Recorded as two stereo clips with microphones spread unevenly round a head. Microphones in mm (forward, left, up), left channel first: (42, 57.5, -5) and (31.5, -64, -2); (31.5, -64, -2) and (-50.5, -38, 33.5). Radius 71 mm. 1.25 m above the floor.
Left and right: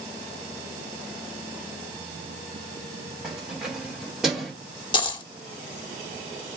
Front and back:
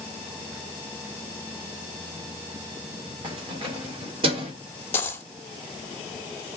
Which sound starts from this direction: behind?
Keys jangling, at 3.2 s.